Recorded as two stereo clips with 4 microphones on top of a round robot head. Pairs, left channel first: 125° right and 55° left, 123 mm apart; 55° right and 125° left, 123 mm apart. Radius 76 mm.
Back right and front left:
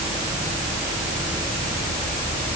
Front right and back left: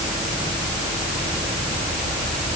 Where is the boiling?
I don't hear boiling.